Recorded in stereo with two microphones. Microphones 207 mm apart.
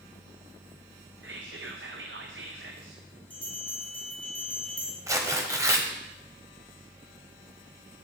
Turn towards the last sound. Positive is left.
turn(degrees=-15)  # may be behind; listen again after turning